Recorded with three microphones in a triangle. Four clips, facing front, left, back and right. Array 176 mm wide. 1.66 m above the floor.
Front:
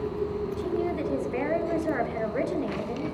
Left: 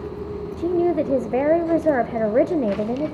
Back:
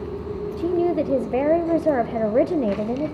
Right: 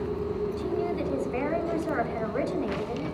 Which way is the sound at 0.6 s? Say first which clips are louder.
Left 9 dB, back 10 dB; 130° left.